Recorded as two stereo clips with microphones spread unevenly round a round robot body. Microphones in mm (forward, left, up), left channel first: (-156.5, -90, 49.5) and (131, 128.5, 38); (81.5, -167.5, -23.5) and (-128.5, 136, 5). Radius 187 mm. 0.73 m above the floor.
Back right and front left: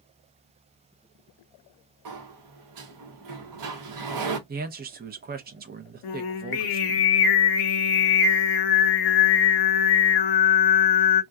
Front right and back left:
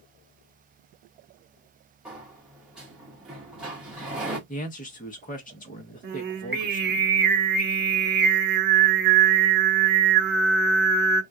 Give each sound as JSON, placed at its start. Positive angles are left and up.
{"t": 2.0, "sound": "a sliding door", "azimuth_deg": 35, "distance_m": 0.9}
{"t": 4.5, "sound": "a man speaking", "azimuth_deg": -10, "distance_m": 0.7}
{"t": 6.0, "sound": "singing", "azimuth_deg": -170, "distance_m": 0.8}